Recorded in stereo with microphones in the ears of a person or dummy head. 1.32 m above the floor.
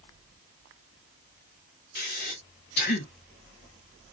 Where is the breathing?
45° left (ahead or behind), 1.0 m.